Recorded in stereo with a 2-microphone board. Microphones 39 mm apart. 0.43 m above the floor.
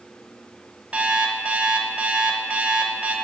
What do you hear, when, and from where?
0.9 s an alarm clock: 40° right (ahead or behind), 0.9 m